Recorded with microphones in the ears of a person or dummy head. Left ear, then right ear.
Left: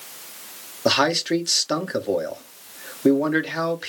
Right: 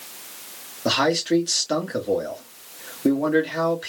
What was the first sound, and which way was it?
A man speaking, 25° left (ahead or behind).